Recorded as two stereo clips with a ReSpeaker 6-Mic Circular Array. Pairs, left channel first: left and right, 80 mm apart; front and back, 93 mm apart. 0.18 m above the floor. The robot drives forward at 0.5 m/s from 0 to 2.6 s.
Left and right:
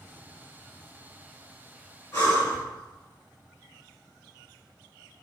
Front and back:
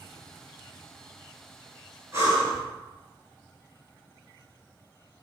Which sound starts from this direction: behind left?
Breathing, at 2.1 s.